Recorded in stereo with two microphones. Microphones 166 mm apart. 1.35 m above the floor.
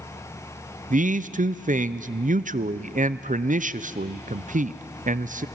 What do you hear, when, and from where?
0.9 s a man speaking: 55° right (ahead or behind), 0.5 m